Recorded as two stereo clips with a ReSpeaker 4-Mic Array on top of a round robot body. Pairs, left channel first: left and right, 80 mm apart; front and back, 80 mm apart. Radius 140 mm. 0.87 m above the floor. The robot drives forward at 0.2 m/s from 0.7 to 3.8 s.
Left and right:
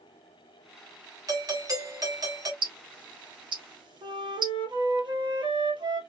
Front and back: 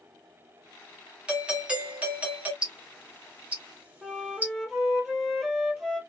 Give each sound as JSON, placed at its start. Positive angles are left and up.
{"t": 1.3, "sound": "a doorbell", "azimuth_deg": -105, "distance_m": 1.9}
{"t": 2.6, "sound": "ticking", "azimuth_deg": -100, "distance_m": 1.4}
{"t": 4.0, "sound": "a flute", "azimuth_deg": -95, "distance_m": 2.5}